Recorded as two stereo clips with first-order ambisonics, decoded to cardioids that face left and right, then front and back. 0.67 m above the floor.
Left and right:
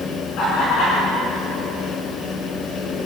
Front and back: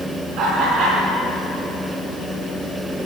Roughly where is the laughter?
Behind left.